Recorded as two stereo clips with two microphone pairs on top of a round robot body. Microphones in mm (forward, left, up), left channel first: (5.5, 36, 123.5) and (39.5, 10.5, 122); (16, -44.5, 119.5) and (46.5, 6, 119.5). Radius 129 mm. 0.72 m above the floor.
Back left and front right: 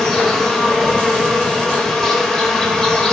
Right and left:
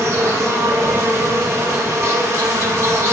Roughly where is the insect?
Left.